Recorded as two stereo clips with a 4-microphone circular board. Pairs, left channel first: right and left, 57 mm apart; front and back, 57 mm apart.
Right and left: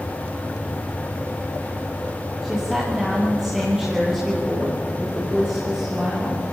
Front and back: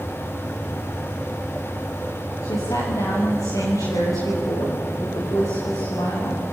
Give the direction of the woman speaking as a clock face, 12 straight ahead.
12 o'clock.